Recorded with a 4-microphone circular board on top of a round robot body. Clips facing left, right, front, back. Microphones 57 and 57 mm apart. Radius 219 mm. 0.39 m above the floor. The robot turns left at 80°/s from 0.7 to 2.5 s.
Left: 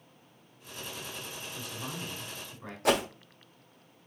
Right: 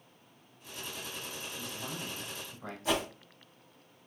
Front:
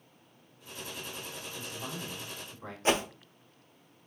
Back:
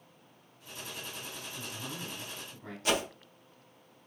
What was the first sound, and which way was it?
A man speaking, 95° left.